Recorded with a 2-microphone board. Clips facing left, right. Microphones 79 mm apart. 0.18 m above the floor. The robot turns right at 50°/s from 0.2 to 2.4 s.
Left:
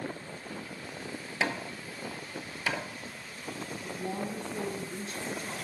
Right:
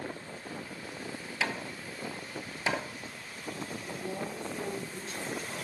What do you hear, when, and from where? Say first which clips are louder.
1.4 s hammering: left 2 dB; 30° left (ahead or behind), 0.9 m; by 2.9 s 20° right (ahead or behind), 0.9 m
3.8 s a woman speaking: left 3 dB; 45° left (ahead or behind), 1.6 m